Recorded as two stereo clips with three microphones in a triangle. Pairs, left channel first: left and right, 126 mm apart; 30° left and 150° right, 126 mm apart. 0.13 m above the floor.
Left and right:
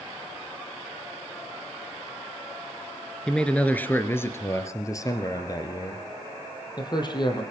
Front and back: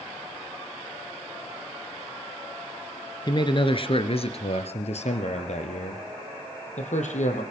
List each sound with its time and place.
3.3 s a man speaking: 10° left, 1.6 m; by 7.4 s 40° left, 4 m